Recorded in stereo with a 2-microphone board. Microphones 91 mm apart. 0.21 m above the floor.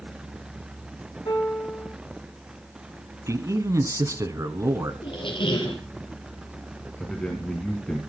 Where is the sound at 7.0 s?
10° left (ahead or behind), 2.5 m.